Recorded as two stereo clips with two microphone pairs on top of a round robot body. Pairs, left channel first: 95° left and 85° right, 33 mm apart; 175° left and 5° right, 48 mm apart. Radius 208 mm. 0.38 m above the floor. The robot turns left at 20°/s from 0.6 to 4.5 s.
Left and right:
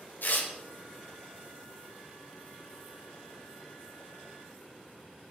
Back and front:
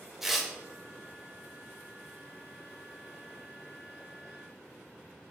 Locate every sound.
0.2 s tearing paper: 75° left, 1.8 m